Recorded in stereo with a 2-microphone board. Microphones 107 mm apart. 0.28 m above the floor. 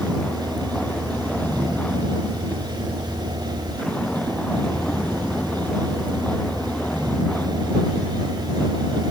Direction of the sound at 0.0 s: 10° left (ahead or behind).